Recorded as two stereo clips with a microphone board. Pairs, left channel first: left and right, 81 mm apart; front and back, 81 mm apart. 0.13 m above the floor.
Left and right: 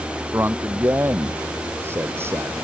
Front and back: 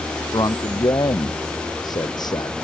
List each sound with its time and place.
0.3 s a man speaking: 30° right